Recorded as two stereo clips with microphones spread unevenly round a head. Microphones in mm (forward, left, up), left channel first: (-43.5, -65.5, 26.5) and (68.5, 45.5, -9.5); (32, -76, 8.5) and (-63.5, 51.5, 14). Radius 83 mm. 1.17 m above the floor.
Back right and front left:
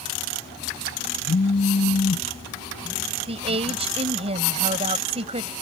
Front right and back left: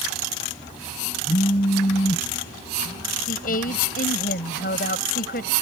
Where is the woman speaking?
10° right.